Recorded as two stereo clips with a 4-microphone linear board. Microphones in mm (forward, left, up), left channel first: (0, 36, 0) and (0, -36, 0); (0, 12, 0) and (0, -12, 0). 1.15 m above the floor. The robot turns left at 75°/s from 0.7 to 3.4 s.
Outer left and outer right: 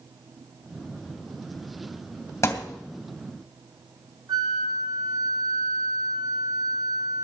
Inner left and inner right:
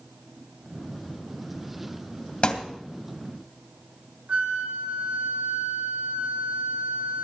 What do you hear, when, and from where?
2.4 s a thud: 45° left (ahead or behind), 2 m; by 2.8 s 65° left (ahead or behind), 2 m
4.3 s a flute: 65° right (ahead or behind), 1.6 m